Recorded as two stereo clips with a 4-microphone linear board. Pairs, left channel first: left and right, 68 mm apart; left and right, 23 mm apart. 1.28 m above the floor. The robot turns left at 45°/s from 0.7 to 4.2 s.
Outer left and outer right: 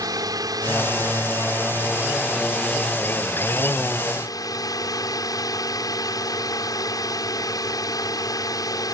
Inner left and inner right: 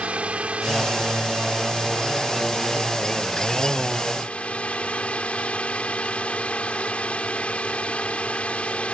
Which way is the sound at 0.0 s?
95° right.